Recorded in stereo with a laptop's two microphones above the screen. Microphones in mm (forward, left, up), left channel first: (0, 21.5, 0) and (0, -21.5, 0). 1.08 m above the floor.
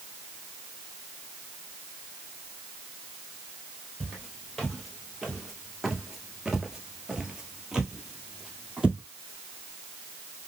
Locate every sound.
4.0 s footsteps: centre (ahead or behind), 1.9 m; by 9.0 s 10° right (ahead or behind), 2 m